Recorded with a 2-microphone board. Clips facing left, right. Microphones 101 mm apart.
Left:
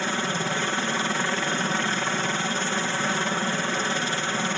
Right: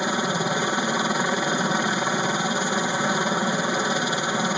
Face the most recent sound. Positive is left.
turn(degrees=-15)  # may be behind; listen again after turning